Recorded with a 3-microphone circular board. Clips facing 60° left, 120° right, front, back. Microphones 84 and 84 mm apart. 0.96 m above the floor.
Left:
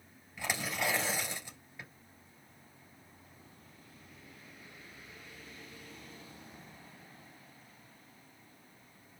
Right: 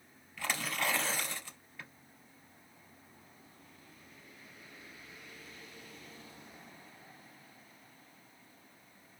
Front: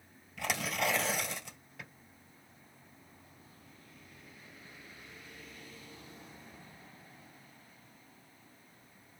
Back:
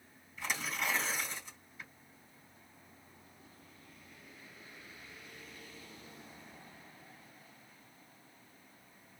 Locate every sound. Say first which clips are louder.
0.4 s tearing paper: even, front 4 dB; 15° right, 2.5 m